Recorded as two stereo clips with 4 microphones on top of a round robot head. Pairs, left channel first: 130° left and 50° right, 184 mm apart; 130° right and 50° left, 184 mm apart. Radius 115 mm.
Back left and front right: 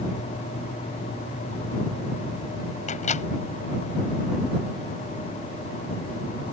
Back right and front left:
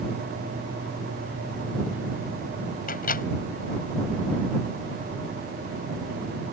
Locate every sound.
2.9 s a microwave: 175° right